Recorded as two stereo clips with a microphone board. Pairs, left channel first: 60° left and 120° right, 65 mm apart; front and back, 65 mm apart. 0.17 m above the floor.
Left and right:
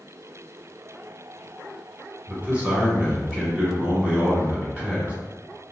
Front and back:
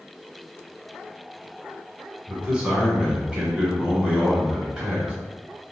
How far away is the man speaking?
About 1.1 m.